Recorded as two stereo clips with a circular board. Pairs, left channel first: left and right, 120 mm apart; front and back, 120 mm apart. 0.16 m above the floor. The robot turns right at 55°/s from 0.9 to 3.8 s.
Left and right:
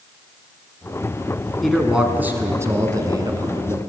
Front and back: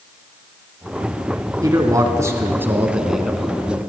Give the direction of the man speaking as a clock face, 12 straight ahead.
6 o'clock.